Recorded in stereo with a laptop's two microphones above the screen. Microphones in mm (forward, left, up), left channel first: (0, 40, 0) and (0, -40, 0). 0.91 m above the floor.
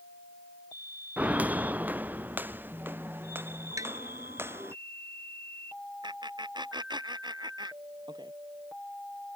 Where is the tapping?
45° right (ahead or behind).